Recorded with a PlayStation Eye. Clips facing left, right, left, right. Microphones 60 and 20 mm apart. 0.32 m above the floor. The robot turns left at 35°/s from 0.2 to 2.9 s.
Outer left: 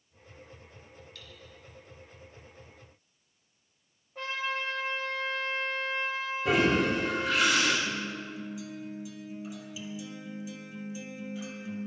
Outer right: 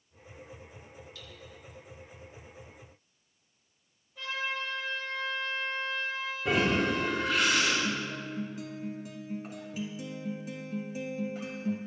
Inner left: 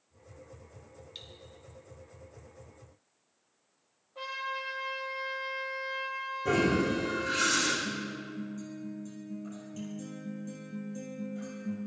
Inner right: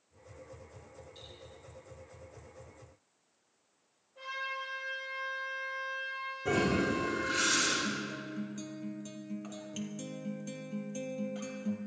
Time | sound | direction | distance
1.1 | cutlery clinking | 60° left (ahead or behind) | 1.8 m
4.2 | a trumpet | 40° left (ahead or behind) | 6 m
6.5 | a toilet flushing | centre (ahead or behind) | 5 m
7.8 | a guitar | 50° right (ahead or behind) | 1.7 m